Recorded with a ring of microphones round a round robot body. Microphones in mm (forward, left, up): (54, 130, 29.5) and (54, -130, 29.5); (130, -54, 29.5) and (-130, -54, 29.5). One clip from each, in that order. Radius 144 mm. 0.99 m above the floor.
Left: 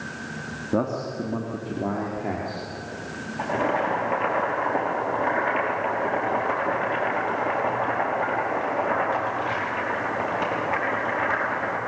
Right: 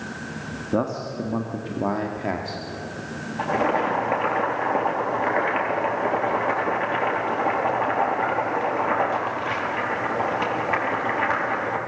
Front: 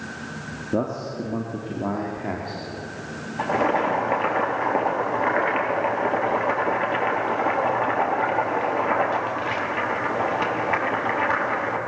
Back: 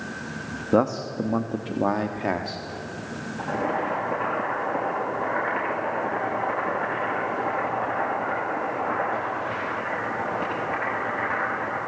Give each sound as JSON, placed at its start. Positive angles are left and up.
{"t": 0.7, "sound": "a man speaking", "azimuth_deg": -175, "distance_m": 1.4}
{"t": 3.4, "sound": "boiling", "azimuth_deg": -25, "distance_m": 6.0}